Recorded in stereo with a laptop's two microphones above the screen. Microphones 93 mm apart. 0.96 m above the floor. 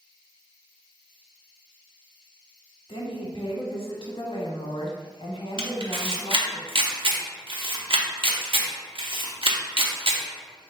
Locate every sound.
2.9 s a woman speaking: 80° left, 1.1 m
5.6 s a camera shutter: 70° right (ahead or behind), 0.8 m